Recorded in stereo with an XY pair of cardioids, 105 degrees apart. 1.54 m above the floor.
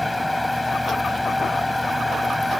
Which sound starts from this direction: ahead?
A fan, at 0.0 s.